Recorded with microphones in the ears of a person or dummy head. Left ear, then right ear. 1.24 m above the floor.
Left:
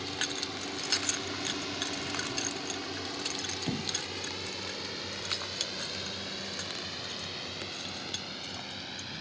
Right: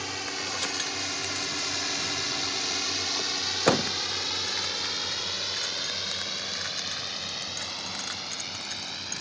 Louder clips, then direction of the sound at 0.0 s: Right 2 dB; 55° right (ahead or behind).